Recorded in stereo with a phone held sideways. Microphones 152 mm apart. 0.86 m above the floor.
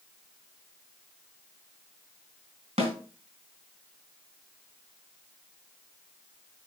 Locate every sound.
2.8 s a snare drum: 40° right (ahead or behind), 3 m